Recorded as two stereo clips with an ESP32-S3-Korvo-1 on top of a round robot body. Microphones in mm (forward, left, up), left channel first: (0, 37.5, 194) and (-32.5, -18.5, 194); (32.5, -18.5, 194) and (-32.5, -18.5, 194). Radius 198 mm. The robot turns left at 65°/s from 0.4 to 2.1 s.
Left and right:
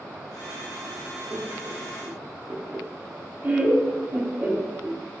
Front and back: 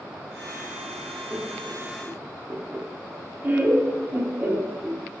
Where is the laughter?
105° right, 1.6 m; by 5.0 s 160° right, 1.6 m.